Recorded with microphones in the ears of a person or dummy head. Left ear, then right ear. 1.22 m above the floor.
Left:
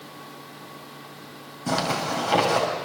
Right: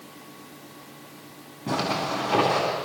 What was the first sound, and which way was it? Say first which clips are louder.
A zipper: left 1 dB; 80° left.